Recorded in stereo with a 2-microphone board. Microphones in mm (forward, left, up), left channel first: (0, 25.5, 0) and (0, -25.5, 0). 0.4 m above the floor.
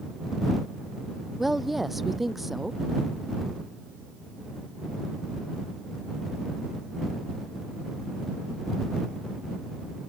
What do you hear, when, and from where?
1.4 s a woman speaking: 5° right (ahead or behind)